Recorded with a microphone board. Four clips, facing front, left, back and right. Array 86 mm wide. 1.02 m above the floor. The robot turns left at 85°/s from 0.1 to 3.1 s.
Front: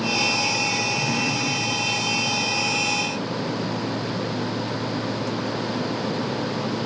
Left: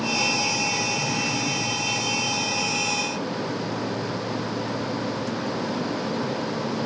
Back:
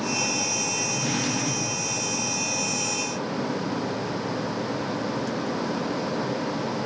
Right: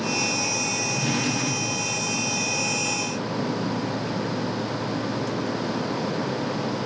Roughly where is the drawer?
Right.